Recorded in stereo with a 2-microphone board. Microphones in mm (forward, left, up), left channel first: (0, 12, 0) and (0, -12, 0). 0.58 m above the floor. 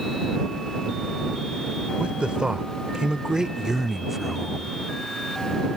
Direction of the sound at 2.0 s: 55° right (ahead or behind).